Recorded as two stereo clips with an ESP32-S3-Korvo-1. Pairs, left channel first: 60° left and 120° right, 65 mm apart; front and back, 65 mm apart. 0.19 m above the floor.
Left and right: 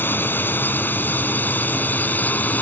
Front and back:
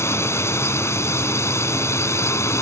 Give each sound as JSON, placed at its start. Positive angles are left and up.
{"t": 0.0, "sound": "a drone", "azimuth_deg": 15}